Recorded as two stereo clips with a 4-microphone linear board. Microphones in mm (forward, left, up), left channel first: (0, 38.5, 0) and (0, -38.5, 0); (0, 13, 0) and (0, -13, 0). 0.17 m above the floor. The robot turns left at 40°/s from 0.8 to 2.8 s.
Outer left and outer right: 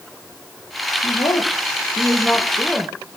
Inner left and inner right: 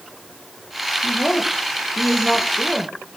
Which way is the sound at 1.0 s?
70° left.